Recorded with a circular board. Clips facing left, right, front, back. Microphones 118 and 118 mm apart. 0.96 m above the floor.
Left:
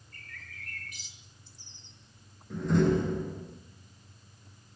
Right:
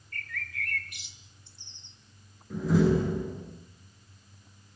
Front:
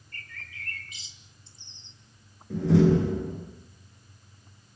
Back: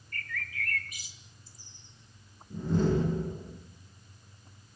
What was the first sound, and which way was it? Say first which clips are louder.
A bird: right 10 dB, back 7 dB; 65° right.